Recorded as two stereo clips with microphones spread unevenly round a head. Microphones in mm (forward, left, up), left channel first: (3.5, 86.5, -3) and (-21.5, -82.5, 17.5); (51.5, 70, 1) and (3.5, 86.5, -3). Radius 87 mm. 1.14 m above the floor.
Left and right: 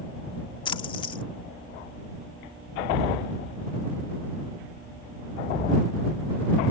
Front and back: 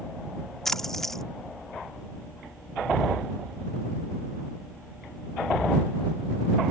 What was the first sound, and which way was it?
A splash, 40° left.